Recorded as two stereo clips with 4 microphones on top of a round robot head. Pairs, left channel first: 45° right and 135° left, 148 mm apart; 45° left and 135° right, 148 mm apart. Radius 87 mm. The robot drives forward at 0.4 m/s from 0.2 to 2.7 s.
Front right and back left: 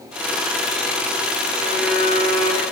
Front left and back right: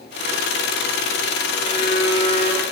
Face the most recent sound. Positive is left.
turn(degrees=100)